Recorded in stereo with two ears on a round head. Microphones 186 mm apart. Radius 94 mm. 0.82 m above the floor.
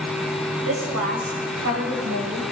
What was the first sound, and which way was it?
A woman speaking, 80° right.